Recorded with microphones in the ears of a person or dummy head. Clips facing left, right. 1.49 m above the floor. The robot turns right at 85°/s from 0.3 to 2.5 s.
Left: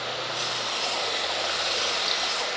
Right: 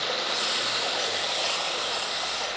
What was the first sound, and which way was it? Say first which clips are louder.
Running water: right 1 dB; 85° right.